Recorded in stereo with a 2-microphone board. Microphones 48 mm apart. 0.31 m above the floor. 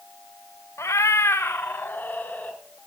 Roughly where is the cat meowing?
Left.